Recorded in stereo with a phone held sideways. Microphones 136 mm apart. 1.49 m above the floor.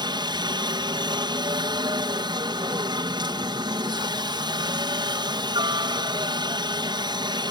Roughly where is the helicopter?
Right.